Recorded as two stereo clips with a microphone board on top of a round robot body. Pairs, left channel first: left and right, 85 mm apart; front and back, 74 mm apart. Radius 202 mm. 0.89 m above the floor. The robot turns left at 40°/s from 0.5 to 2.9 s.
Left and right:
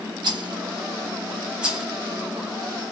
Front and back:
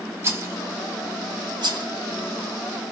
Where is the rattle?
125° right, 1.3 m; by 1.9 s 175° right, 1.3 m.